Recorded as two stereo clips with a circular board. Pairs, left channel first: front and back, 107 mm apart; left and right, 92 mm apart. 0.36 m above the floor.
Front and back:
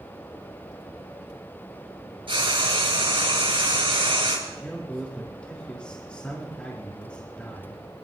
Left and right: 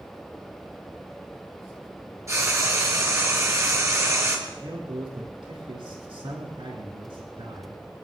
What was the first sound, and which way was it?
Frying, 145° right.